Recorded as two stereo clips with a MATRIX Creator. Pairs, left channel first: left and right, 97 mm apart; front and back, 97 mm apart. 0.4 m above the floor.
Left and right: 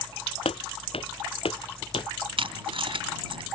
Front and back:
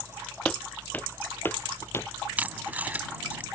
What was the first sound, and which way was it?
Footsteps, 80° left.